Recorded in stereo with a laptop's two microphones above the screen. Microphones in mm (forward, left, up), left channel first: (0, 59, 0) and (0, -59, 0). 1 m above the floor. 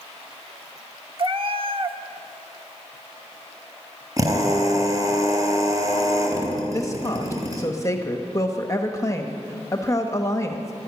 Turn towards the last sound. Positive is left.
turn(degrees=25)  # may be behind; listen again after turning